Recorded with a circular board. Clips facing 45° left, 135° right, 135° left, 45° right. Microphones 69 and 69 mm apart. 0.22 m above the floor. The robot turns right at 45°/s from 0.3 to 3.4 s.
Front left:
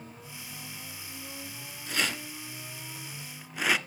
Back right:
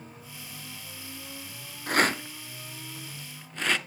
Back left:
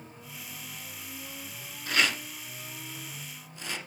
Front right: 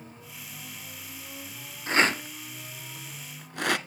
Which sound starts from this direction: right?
A rattle, at 1.9 s.